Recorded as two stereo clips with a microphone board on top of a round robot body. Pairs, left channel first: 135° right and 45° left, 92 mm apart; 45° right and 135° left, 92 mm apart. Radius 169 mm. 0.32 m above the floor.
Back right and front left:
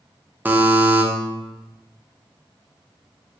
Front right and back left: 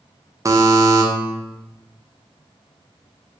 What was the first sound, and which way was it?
A buzzer, 105° left.